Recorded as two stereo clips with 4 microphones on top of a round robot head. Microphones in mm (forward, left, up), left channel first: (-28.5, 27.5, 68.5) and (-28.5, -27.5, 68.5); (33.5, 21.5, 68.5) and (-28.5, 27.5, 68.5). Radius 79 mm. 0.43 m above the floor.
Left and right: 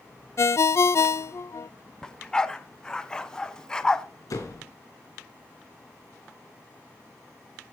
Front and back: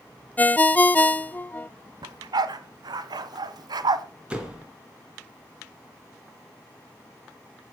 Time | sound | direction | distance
0.4 | a ringtone | 60° left | 0.5 m
2.0 | a dog barking | 165° left | 1.4 m
4.3 | a door slam | 100° left | 4.5 m